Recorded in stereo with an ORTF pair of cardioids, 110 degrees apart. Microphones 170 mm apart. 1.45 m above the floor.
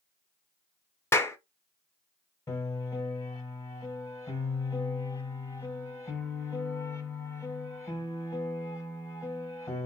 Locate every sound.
1.1 s a clap: 15° left, 0.6 m
2.5 s a piano: 20° left, 0.9 m